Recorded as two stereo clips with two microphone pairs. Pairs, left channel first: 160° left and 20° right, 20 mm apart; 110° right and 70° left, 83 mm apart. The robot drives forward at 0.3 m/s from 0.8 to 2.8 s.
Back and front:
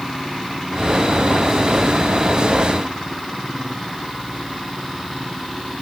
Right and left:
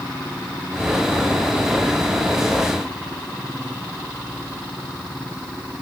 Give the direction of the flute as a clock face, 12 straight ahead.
I don't hear a flute.